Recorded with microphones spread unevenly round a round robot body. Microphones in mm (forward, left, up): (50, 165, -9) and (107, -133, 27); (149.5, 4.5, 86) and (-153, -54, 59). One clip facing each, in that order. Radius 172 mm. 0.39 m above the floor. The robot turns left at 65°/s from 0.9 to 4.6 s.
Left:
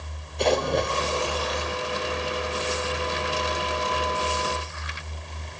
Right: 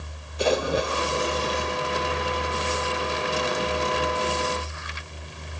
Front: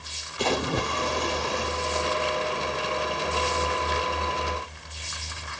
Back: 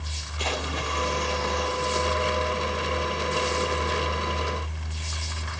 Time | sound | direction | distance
0.4 | a splash | 10° left | 1.8 m